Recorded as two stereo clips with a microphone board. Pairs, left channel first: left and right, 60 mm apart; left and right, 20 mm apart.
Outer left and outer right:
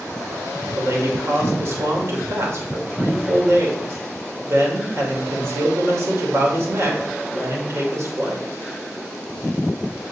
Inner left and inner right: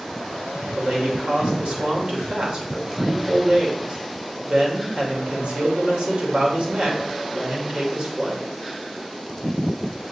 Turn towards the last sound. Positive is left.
turn(degrees=-50)  # may be behind; listen again after turning